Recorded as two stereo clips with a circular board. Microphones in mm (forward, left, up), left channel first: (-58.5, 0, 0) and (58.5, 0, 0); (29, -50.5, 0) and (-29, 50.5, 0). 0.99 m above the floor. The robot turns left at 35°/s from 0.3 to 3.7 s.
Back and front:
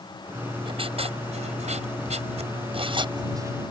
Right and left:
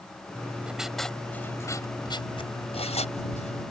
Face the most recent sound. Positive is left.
turn(degrees=-65)